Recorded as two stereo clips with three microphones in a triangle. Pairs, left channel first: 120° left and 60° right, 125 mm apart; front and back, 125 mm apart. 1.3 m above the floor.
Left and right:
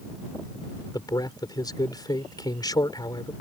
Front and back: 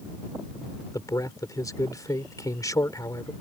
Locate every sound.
0.9 s a man speaking: 60° left